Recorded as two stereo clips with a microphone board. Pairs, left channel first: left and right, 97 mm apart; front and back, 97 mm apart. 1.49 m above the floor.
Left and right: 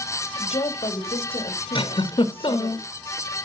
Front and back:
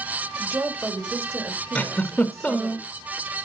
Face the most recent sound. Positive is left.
turn(degrees=75)